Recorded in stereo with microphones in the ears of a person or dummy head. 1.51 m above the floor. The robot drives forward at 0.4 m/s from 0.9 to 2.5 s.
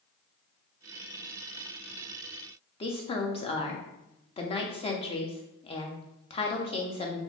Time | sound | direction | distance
2.8 | a woman speaking | 25° left (ahead or behind) | 0.5 m